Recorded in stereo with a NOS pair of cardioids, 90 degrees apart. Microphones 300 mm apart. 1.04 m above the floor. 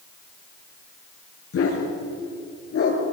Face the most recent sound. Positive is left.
turn(degrees=50)